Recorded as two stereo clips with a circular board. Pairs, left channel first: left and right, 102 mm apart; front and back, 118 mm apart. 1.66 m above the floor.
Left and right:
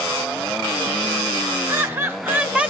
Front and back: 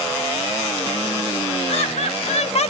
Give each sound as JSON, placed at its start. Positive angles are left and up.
{"t": 1.7, "sound": "laughter", "azimuth_deg": -25, "distance_m": 1.8}